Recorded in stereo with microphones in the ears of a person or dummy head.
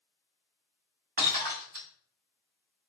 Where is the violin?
No violin in this recording.